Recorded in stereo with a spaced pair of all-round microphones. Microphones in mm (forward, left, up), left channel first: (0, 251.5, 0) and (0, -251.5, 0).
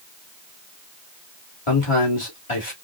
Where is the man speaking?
75° left (ahead or behind), 3 m.